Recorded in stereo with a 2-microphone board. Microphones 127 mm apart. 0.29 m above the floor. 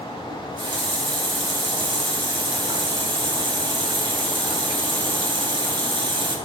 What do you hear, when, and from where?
0.3 s a running tap: 40° right (ahead or behind), 1.1 m